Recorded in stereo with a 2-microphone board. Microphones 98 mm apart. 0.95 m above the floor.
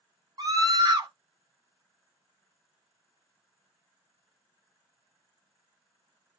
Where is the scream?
45° right (ahead or behind), 1.0 m.